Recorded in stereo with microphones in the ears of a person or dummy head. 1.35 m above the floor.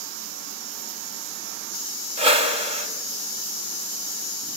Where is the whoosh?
25° right (ahead or behind), 1.8 m.